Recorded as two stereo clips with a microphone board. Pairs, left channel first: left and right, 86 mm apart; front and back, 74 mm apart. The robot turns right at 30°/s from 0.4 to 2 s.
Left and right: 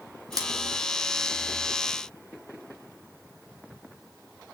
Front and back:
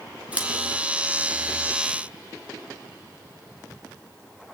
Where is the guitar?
I don't hear a guitar.